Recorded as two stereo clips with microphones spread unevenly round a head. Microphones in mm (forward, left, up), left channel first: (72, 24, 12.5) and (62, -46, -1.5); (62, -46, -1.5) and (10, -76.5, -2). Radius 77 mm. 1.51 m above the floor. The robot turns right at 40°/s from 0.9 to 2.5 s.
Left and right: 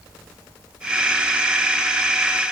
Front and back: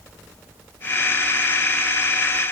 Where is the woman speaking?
No woman speaking in this recording.